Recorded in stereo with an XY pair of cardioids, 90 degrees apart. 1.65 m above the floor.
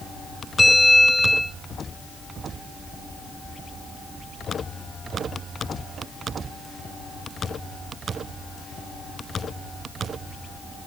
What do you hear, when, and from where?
0.6 s a bell: straight ahead, 1.5 m